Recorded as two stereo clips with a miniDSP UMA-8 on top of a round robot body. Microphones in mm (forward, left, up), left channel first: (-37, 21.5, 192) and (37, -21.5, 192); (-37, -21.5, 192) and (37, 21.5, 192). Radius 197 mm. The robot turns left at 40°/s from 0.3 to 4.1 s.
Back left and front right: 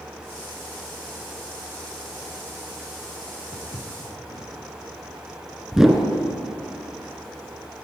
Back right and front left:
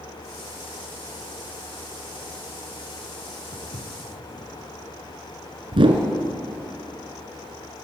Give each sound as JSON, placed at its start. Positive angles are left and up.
{"t": 3.5, "sound": "footsteps", "azimuth_deg": -155, "distance_m": 5.0}
{"t": 5.7, "sound": "a whoosh", "azimuth_deg": 55, "distance_m": 2.0}